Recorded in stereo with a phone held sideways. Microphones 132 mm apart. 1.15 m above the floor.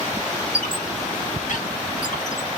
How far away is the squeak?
About 1.4 m.